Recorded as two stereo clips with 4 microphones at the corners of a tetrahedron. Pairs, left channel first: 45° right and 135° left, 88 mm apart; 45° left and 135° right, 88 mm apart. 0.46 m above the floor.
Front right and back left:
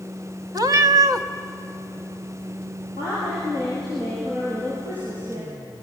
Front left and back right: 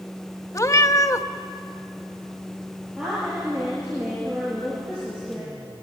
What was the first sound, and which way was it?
A cat meowing, 95° left.